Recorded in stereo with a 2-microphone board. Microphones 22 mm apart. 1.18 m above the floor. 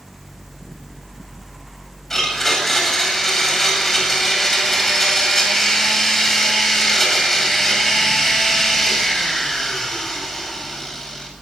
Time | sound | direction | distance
2.1 | a blender | 20° left (ahead or behind) | 9 m